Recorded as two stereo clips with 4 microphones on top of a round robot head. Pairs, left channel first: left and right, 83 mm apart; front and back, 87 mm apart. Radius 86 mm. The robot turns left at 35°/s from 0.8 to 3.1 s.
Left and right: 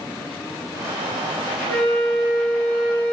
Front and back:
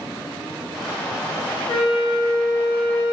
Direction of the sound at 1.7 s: 15° left.